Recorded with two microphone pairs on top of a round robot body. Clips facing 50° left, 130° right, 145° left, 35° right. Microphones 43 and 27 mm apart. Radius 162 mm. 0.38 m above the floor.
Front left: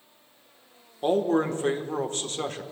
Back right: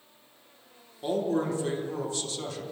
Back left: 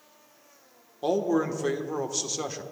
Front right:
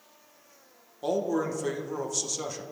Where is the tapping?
I don't hear tapping.